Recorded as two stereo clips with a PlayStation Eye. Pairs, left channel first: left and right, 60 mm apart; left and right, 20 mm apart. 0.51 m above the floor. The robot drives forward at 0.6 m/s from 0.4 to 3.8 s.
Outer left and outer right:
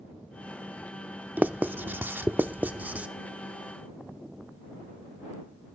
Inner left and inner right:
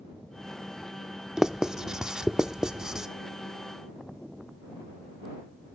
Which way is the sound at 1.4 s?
30° right (ahead or behind).